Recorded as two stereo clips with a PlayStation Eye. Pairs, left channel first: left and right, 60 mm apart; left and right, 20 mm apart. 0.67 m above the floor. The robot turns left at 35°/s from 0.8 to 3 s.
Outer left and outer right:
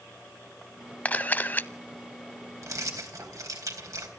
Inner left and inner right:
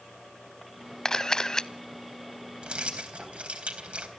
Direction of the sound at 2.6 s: 55° right (ahead or behind).